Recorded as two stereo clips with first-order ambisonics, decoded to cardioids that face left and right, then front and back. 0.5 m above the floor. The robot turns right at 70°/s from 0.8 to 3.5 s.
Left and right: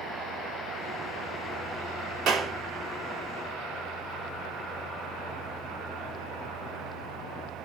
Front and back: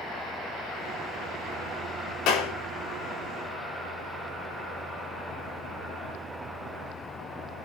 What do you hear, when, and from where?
2.3 s a clap: 30° right, 3.5 m; by 2.5 s 10° right, 3.5 m